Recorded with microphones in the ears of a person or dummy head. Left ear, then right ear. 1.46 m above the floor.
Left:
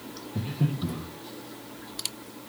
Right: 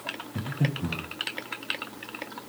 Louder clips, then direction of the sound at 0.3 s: Left 1 dB; 45° right (ahead or behind).